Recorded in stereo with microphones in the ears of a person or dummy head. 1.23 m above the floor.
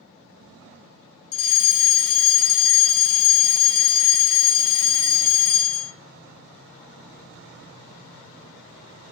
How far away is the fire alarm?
About 2.0 m.